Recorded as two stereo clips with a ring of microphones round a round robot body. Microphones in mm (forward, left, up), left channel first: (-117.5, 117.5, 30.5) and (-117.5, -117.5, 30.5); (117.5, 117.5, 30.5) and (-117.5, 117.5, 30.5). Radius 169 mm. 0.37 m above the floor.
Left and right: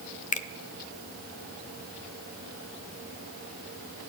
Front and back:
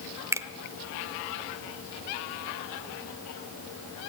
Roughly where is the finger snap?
Left.